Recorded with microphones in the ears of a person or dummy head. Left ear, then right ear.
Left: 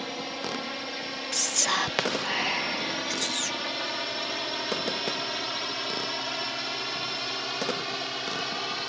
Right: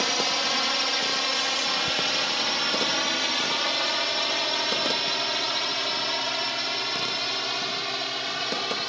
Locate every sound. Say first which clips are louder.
0.0 s a drone: right 10 dB; 45° right (ahead or behind); by 8.9 s 5° right (ahead or behind)
1.3 s whispering: right 1 dB; 65° left (ahead or behind)